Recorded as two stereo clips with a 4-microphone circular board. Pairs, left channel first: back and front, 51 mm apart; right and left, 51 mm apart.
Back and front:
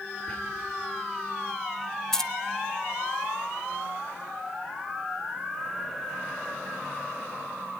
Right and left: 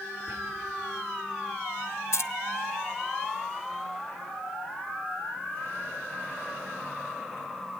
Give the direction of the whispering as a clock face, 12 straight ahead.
8 o'clock.